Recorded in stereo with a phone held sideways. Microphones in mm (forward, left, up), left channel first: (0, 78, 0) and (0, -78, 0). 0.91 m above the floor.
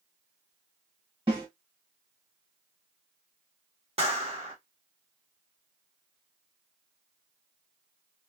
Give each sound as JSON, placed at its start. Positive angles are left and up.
{"t": 1.3, "sound": "a snare drum", "side_deg": -35, "distance_m": 1.5}
{"t": 4.0, "sound": "a clap", "side_deg": -40, "distance_m": 1.3}